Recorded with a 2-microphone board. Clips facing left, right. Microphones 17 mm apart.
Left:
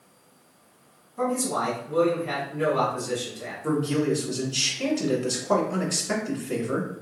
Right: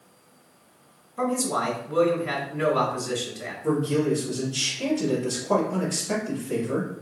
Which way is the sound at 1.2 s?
25° right (ahead or behind).